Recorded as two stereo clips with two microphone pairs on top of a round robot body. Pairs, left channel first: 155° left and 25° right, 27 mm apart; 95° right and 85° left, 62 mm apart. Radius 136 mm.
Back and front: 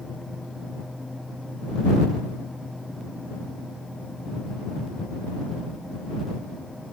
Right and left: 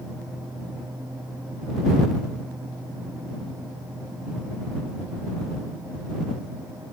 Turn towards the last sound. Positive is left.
No sound to turn to.